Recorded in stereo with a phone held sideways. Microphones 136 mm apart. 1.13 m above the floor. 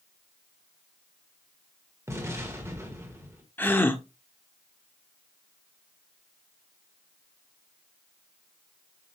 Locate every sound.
2.1 s an explosion: 20° right (ahead or behind), 1.6 m
3.6 s a gasp: 15° left (ahead or behind), 0.8 m